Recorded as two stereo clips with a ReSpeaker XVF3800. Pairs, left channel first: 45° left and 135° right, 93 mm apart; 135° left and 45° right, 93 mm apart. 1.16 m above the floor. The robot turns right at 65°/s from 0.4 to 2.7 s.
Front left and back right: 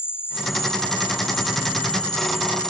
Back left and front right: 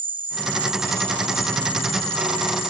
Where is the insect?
20° right; by 2.7 s 130° left.